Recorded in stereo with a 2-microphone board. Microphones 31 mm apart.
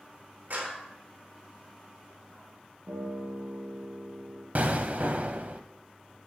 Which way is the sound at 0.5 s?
65° right (ahead or behind).